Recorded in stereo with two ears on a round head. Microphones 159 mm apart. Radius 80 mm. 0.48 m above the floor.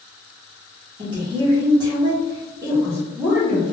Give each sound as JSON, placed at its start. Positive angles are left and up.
{"t": 1.0, "sound": "a woman speaking", "side_deg": -25, "distance_m": 1.1}